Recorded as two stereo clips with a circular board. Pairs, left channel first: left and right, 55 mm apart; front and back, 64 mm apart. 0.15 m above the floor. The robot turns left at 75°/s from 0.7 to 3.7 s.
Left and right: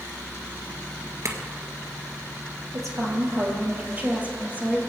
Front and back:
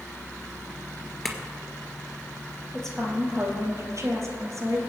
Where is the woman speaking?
75° right, 3 m; by 4.8 s 145° right, 3 m.